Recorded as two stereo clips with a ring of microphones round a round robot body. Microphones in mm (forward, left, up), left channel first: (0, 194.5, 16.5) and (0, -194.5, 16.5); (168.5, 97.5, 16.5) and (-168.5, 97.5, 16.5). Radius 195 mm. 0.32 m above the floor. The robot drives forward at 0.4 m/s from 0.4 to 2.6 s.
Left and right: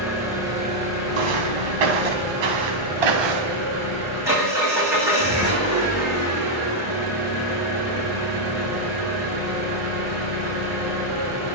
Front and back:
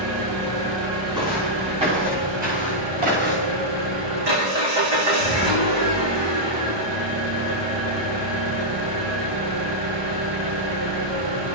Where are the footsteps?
100° right, 4.5 m; by 3.7 s 115° right, 3.5 m.